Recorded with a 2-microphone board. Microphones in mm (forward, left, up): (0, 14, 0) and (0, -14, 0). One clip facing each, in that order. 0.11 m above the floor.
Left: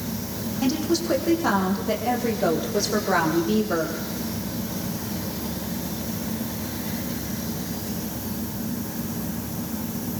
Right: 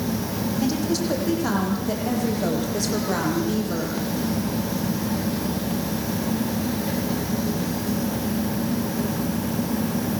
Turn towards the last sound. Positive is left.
turn(degrees=20)  # may be behind; listen again after turning